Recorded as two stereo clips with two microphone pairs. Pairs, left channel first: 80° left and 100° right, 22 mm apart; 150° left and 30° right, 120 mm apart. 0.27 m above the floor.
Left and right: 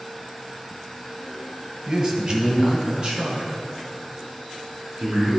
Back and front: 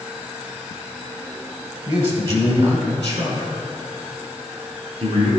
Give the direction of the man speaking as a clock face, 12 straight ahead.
1 o'clock.